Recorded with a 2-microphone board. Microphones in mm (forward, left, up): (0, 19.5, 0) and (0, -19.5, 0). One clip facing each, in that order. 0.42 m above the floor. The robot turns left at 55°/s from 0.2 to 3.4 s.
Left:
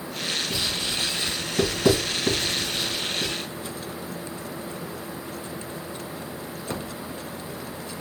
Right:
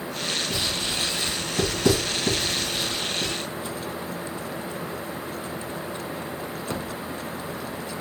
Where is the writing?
50° right (ahead or behind), 2 m; by 3.3 s 70° left (ahead or behind), 2 m.